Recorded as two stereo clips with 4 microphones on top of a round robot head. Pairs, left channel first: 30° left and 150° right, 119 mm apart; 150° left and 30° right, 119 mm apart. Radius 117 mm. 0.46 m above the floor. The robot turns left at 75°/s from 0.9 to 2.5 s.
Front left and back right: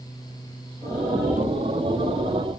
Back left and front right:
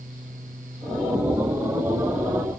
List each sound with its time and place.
Only background noise.